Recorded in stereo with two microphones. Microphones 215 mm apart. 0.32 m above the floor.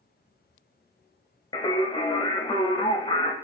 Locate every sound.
1.5 s singing: 20° left (ahead or behind), 0.5 m